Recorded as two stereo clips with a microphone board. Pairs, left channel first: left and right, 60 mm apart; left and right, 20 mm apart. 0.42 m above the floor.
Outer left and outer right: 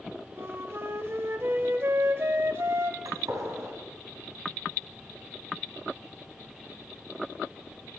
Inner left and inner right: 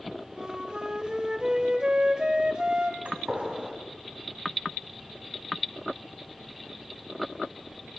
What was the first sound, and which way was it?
A flute, 50° right (ahead or behind).